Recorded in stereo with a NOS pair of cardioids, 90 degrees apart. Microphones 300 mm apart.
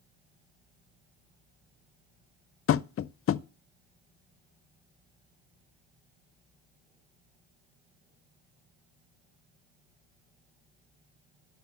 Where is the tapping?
50° left, 0.6 m.